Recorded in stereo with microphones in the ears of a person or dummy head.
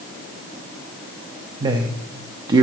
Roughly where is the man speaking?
Right.